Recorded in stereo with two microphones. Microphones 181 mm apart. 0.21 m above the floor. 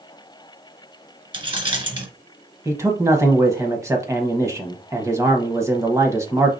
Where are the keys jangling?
25° right (ahead or behind), 1.8 m.